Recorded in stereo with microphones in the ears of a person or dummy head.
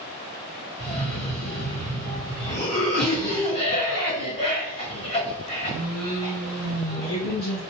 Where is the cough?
25° left (ahead or behind), 1.5 m.